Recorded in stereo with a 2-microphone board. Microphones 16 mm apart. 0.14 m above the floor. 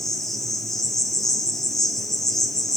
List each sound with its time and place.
0.0 s an insect: 15° left (ahead or behind), 1.2 m